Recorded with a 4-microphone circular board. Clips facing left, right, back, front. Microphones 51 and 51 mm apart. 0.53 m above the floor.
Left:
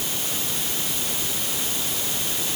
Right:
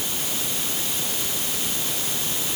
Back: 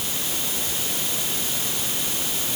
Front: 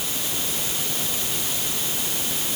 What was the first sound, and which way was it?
Only background noise.